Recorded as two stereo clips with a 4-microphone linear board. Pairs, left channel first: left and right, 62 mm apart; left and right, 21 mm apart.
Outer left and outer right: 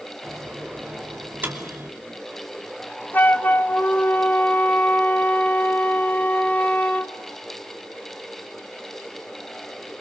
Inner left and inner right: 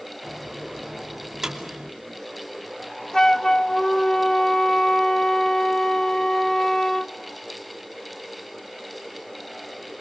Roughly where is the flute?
Left.